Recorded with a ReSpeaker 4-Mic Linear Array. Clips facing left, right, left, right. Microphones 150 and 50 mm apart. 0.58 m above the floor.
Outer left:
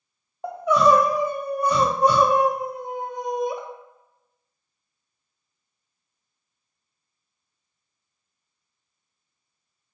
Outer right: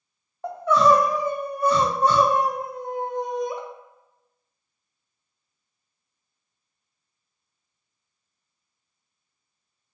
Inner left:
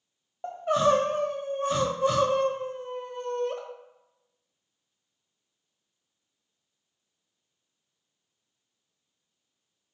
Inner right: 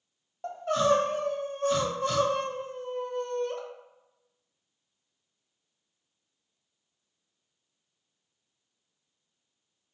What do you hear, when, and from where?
0.4 s crying: 15° left (ahead or behind), 0.5 m